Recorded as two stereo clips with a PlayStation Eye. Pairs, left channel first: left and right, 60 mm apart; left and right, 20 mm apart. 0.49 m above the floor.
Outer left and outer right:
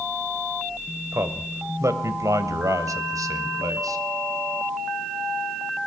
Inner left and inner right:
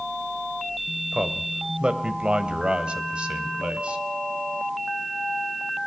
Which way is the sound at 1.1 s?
45° right (ahead or behind).